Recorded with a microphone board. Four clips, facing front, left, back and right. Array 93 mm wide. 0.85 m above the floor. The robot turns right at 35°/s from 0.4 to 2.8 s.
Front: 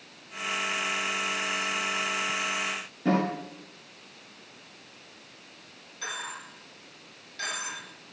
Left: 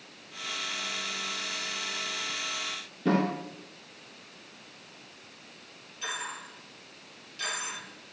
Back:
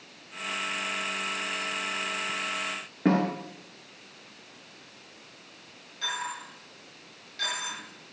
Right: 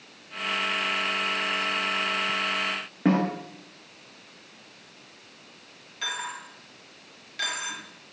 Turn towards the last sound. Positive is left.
turn(degrees=-85)